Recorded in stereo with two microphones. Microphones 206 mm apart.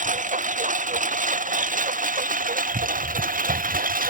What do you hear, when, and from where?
0.0 s a lawn mower: 40° right (ahead or behind); by 4.1 s 45° right (ahead or behind)